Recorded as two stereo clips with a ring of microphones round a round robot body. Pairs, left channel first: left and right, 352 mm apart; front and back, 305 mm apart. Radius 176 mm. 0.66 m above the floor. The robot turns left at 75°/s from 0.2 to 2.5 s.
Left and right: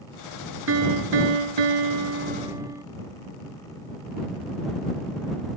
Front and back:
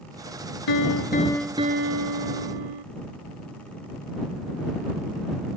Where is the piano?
35° right; by 2.8 s 170° right.